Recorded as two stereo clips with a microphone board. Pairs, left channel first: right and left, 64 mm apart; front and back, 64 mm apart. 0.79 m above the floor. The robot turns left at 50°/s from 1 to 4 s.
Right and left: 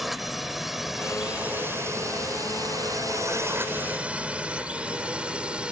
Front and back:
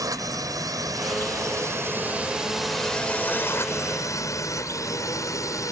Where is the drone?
175° left; by 5.7 s 15° left.